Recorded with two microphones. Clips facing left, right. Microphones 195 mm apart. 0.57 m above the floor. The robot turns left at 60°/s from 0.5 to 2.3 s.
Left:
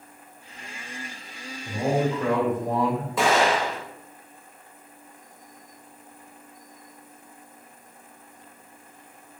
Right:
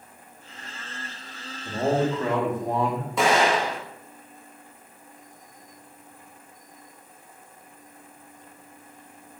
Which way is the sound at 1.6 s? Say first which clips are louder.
Right 1 dB; 100° right.